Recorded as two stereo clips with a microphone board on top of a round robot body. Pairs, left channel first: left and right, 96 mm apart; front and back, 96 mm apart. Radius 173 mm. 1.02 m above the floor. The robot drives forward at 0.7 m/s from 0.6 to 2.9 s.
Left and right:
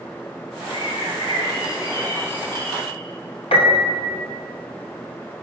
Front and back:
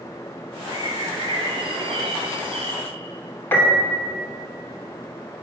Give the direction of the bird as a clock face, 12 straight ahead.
8 o'clock.